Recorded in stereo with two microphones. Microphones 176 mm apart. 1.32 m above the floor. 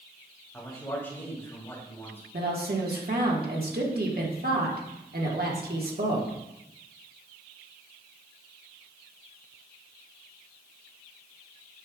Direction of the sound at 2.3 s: 60° right (ahead or behind).